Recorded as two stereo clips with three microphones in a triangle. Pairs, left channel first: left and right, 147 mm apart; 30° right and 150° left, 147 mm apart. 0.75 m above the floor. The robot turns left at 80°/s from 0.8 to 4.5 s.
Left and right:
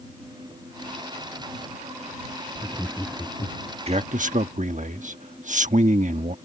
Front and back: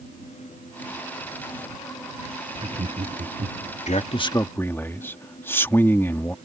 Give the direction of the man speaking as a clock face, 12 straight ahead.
2 o'clock.